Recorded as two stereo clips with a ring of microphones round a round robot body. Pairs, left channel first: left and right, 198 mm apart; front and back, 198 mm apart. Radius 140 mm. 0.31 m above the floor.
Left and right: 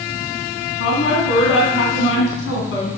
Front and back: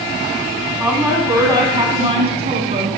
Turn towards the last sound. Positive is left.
turn(degrees=130)